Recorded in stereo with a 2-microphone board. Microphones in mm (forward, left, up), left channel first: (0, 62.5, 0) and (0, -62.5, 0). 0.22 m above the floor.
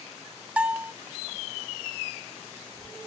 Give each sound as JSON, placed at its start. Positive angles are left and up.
{"t": 0.6, "sound": "a bell", "side_deg": -10, "distance_m": 0.6}